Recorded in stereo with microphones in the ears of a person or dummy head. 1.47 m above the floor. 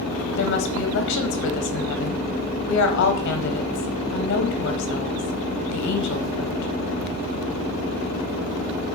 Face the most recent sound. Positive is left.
turn(degrees=60)  # may be behind; listen again after turning